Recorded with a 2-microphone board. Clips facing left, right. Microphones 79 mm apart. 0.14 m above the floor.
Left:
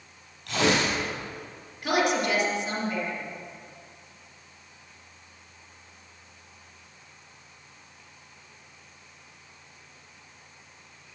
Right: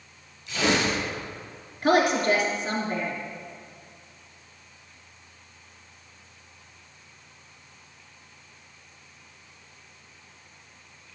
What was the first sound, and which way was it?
Tearing paper, 75° left (ahead or behind).